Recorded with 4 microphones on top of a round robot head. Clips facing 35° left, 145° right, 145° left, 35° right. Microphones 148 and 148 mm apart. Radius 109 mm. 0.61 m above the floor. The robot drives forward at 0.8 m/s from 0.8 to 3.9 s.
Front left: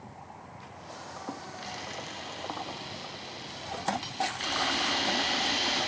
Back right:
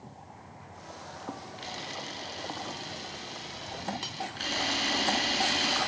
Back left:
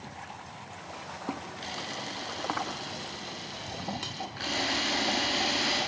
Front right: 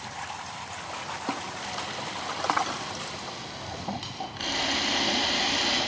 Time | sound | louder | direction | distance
1.6 | a camera shutter | even, front right 3 dB | 170° left | 1.1 m
4.4 | a camera shutter | front left 1 dB, front right 1 dB | 100° right | 9 m